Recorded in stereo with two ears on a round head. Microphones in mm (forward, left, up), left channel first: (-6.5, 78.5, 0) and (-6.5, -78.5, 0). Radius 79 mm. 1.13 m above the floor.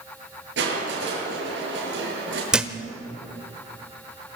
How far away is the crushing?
About 8 m.